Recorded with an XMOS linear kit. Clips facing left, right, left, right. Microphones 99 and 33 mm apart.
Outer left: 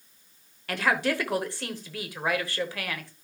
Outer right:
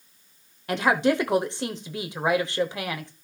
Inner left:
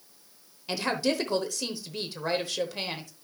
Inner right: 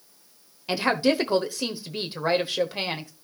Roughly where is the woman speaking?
Right.